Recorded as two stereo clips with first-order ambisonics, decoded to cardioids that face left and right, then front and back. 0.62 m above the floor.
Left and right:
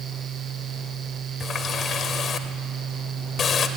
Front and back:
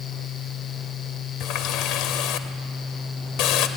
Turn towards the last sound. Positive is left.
turn(degrees=30)